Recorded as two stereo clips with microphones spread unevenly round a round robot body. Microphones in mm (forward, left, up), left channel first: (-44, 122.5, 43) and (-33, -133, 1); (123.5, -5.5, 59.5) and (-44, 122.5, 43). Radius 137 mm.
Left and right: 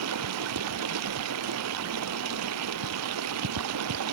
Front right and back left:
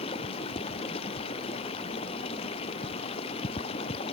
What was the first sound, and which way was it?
Running water, 105° right.